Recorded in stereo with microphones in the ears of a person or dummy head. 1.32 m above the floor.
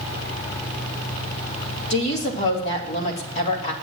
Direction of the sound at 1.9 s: 35° left (ahead or behind).